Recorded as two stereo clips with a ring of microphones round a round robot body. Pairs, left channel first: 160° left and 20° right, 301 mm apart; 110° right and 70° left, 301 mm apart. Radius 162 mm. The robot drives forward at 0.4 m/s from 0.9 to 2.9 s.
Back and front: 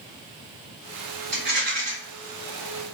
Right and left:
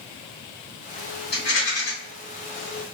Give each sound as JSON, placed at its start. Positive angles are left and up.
{"t": 1.3, "sound": "a rattle", "azimuth_deg": -70, "distance_m": 1.7}